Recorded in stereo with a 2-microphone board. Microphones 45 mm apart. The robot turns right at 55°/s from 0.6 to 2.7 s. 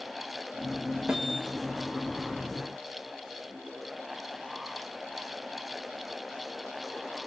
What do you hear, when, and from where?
1.1 s a snare drum: 15° right (ahead or behind), 1.2 m